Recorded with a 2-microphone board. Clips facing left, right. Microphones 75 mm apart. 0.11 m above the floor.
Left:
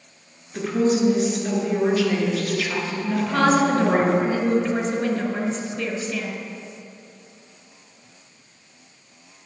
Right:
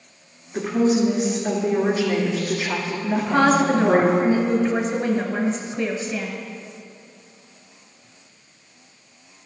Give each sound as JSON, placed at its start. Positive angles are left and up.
{"t": 0.5, "sound": "a woman speaking", "side_deg": -15, "distance_m": 1.6}
{"t": 3.1, "sound": "a woman speaking", "side_deg": -15, "distance_m": 1.2}